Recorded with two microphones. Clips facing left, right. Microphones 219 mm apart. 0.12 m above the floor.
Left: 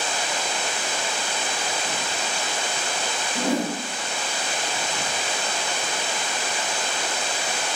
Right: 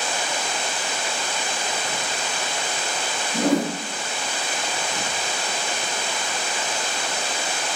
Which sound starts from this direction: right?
A whoosh, at 3.3 s.